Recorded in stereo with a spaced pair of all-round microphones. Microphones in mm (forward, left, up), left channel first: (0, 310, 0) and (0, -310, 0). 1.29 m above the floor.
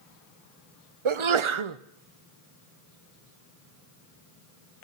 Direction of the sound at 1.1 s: 55° right (ahead or behind).